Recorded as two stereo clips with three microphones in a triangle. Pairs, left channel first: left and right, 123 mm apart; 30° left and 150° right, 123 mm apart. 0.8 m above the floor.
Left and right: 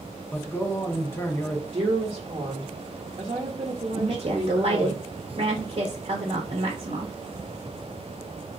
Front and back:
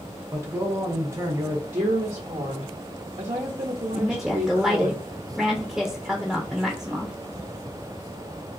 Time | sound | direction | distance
0.3 | a man speaking | 155° left | 0.9 m
1.7 | a woman speaking | 125° right | 0.9 m
3.9 | a woman speaking | 65° right | 0.6 m